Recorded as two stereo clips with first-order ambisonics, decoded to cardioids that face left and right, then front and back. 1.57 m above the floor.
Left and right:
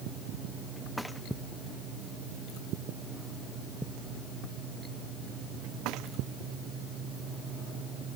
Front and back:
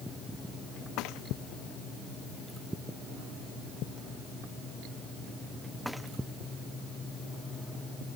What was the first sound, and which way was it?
Only background noise.